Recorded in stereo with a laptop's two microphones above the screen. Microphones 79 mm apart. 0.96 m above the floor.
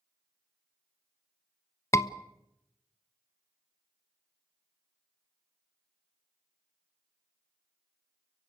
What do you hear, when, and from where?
1.9 s a scream: 40° left (ahead or behind), 1.0 m